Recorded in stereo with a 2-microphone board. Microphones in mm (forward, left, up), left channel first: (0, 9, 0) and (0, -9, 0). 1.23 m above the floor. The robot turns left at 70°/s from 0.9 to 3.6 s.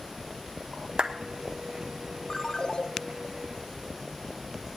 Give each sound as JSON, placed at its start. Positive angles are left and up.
{"t": 1.0, "sound": "a clap", "side_deg": -65, "distance_m": 1.2}
{"t": 2.3, "sound": "a ringtone", "azimuth_deg": 145, "distance_m": 1.2}